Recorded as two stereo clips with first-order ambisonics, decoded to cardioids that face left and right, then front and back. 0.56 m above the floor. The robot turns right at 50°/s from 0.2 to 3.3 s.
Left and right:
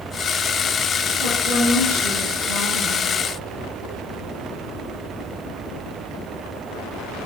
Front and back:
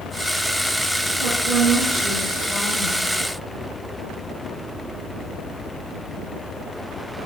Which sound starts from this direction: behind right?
A woman speaking, at 1.2 s.